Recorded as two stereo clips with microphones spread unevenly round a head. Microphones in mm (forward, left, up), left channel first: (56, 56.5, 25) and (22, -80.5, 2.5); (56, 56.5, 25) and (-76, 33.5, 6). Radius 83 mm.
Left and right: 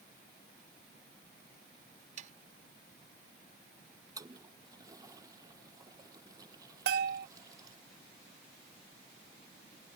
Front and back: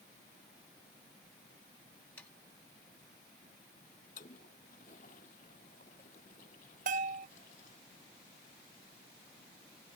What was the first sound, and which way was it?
Sawing, 70° right.